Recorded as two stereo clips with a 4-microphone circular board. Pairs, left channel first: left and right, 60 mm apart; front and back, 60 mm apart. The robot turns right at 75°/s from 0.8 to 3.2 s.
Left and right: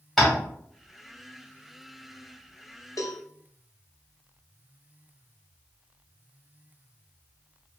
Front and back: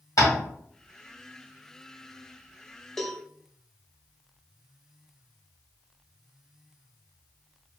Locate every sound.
0.2 s tapping: straight ahead, 1.5 m
3.0 s a cowbell: 85° left, 0.6 m; by 3.2 s 100° left, 0.6 m